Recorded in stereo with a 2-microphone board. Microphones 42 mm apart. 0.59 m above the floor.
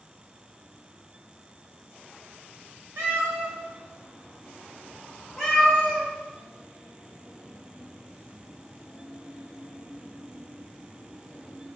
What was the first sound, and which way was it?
A cat meowing, 75° right (ahead or behind).